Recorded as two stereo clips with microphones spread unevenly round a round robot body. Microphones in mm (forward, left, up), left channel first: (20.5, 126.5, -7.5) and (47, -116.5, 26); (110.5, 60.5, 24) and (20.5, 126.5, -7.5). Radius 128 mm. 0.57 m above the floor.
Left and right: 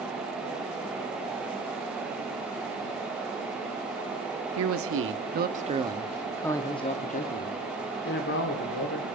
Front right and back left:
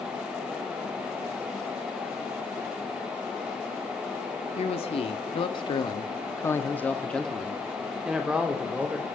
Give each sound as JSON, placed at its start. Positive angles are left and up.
{"t": 4.6, "sound": "a man speaking", "azimuth_deg": -80, "distance_m": 1.0}